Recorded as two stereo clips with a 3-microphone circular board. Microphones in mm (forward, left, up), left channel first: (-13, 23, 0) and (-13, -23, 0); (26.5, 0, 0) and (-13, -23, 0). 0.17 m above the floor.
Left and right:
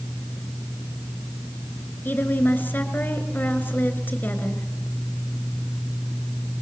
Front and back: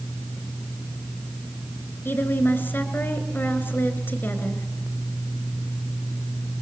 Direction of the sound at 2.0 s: 55° left.